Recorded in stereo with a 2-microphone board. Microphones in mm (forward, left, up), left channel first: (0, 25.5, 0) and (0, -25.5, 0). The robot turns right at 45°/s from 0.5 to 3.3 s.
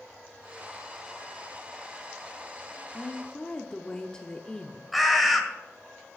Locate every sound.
2.9 s a woman speaking: 10° left (ahead or behind), 0.7 m; by 4.8 s 15° left (ahead or behind), 0.7 m
4.9 s a bird: centre (ahead or behind), 1.6 m